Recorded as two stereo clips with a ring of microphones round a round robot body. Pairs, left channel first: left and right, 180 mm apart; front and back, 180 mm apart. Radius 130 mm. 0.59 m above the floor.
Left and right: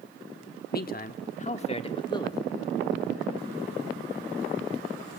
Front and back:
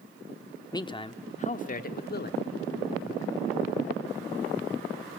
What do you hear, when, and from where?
0.7 s a man speaking: 65° left, 1.1 m; by 2.4 s 20° left, 1.3 m